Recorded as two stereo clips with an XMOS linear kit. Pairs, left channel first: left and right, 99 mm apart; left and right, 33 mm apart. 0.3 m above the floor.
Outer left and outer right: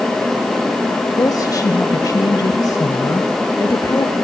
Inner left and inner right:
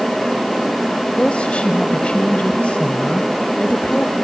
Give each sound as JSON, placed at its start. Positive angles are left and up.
{"t": 1.2, "sound": "a woman speaking", "side_deg": 40, "distance_m": 1.1}